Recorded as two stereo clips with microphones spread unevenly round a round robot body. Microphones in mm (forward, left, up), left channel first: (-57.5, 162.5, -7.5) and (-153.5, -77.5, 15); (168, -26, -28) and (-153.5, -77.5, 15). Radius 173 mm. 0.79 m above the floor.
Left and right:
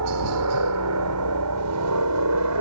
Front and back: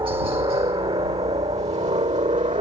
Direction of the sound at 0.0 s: 95° right.